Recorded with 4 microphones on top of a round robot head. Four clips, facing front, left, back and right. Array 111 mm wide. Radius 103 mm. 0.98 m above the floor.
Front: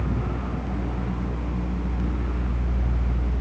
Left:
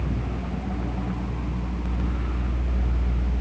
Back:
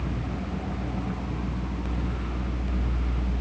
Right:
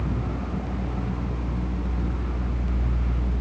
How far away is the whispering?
I don't hear whispering.